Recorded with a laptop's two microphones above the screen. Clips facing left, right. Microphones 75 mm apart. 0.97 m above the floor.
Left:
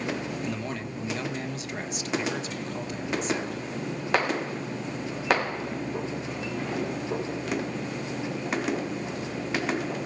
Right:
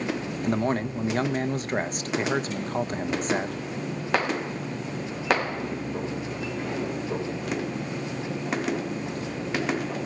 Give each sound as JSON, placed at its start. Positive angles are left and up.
{"t": 0.4, "sound": "a man speaking", "side_deg": -45, "distance_m": 1.3}